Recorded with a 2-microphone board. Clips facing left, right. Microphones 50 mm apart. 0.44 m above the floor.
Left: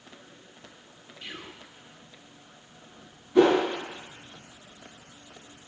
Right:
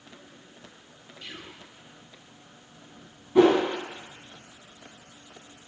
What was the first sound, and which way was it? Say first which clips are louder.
Whispering: left 1 dB; 15° left (ahead or behind).